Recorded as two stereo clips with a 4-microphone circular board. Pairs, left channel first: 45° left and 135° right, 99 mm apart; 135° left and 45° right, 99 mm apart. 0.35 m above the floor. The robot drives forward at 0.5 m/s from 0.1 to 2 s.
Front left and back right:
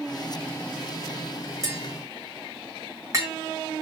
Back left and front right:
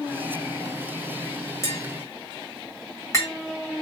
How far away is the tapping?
About 1.7 m.